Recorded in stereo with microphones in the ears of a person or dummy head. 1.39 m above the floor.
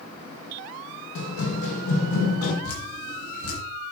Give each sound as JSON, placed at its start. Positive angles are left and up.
{"t": 1.1, "sound": "running footsteps", "side_deg": 65, "distance_m": 4.0}
{"t": 2.6, "sound": "dripping", "side_deg": 55, "distance_m": 6.5}